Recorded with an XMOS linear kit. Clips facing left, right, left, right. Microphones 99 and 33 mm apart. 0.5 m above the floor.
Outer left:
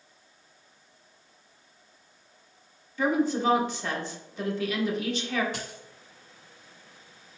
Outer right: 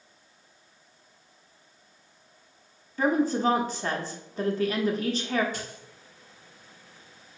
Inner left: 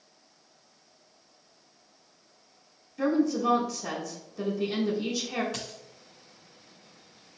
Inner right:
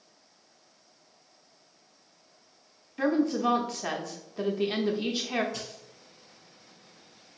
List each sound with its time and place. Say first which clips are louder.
3.0 s a woman speaking: outer right 1 dB, even; 40° right (ahead or behind), 0.9 m
5.5 s a dropped coin: even, inner left 1 dB; 80° left, 1.1 m